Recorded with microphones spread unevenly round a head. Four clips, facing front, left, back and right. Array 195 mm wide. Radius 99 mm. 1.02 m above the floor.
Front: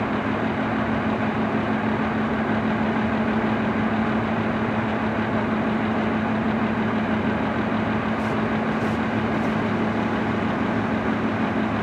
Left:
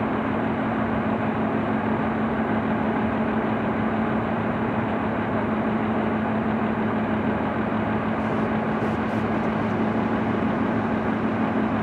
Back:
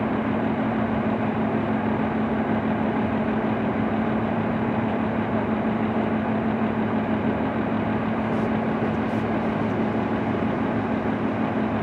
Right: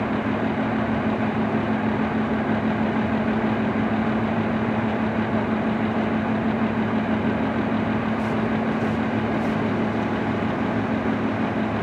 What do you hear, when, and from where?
Only background noise.